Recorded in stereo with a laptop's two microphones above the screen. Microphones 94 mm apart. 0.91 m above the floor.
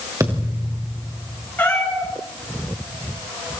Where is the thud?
35° right (ahead or behind), 4.5 m.